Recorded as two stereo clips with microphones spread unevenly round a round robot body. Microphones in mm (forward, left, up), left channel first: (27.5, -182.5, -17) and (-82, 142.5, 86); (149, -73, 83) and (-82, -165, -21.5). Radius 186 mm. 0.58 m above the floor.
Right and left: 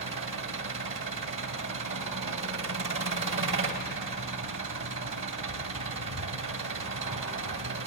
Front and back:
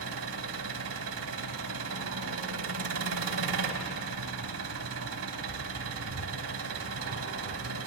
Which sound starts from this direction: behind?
An engine running, at 0.0 s.